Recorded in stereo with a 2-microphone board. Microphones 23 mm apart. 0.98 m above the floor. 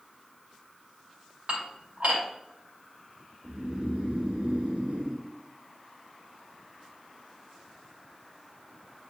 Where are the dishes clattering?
65° right (ahead or behind), 2.5 m.